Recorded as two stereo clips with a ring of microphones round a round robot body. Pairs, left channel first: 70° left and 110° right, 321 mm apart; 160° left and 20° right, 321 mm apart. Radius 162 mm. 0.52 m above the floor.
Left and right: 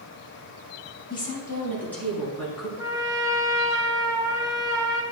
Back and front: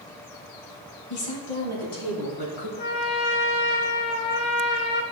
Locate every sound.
1.1 s a woman speaking: 145° left, 3.5 m; by 2.7 s 160° left, 5 m
2.8 s a trumpet: 170° left, 1.4 m